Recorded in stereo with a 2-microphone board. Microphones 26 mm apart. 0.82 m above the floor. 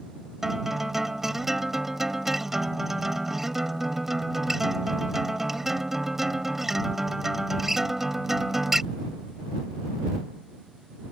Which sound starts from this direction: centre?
A guitar, at 0.4 s.